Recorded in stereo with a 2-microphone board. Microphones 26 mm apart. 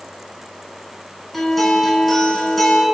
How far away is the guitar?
About 1.3 m.